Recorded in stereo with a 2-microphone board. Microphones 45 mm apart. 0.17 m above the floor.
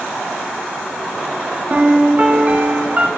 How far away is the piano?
About 0.5 m.